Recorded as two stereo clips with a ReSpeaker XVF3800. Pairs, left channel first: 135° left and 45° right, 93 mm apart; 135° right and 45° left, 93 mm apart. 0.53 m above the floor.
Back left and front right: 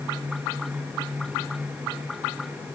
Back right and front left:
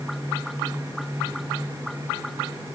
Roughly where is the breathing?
No breathing in this recording.